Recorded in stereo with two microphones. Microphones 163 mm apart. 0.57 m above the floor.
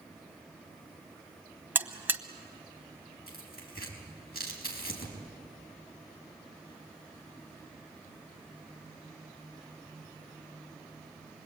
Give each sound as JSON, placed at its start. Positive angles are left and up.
{"t": 1.8, "sound": "a buzzer", "side_deg": -15, "distance_m": 1.2}
{"t": 3.3, "sound": "tearing paper", "side_deg": 70, "distance_m": 5.0}